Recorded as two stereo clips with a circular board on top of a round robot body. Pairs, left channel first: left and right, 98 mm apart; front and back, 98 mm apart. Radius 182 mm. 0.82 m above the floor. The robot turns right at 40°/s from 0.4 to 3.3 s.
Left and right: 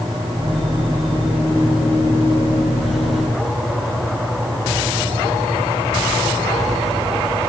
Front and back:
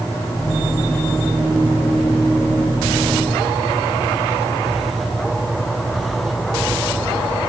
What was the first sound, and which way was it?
Only background noise.